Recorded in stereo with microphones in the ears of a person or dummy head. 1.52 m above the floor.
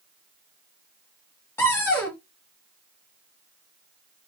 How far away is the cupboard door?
About 1.1 m.